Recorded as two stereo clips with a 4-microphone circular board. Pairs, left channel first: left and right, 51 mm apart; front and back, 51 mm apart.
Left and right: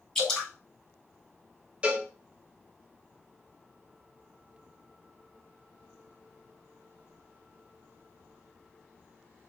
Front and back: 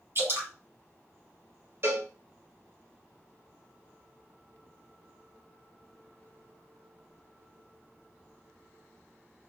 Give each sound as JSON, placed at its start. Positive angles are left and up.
{"t": 0.1, "sound": "dripping", "azimuth_deg": 170, "distance_m": 2.0}
{"t": 1.8, "sound": "a cowbell", "azimuth_deg": -155, "distance_m": 1.3}